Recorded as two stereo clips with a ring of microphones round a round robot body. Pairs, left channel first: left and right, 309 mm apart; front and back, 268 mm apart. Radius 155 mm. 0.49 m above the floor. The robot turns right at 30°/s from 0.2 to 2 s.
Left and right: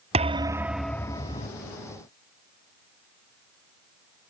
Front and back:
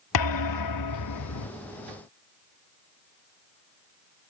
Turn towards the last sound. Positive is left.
turn(degrees=35)